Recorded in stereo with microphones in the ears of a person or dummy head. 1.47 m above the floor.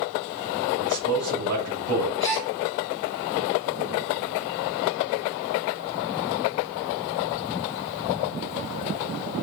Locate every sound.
0.8 s a man speaking: 60° right (ahead or behind), 2 m
2.2 s a gasp: centre (ahead or behind), 1.3 m